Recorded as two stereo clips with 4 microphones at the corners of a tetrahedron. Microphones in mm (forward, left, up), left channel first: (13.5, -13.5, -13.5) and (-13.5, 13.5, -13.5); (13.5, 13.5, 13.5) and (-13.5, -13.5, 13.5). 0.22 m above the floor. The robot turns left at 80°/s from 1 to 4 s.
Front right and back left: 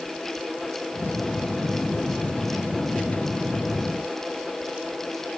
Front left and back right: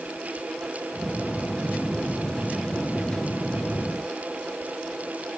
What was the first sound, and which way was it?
Only background noise.